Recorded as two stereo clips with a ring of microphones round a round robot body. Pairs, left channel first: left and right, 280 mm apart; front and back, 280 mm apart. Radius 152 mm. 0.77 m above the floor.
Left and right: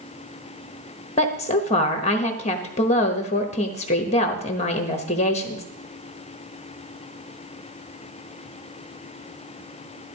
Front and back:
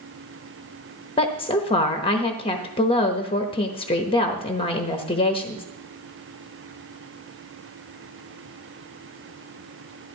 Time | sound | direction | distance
1.2 | a woman speaking | 50° left | 0.9 m